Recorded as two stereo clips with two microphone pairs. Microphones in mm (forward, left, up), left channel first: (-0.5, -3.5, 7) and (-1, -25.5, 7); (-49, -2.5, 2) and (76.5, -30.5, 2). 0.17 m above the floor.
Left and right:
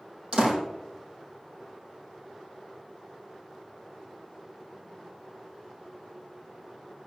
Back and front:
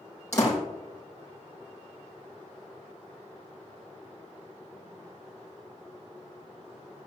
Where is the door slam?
120° right, 5.5 m.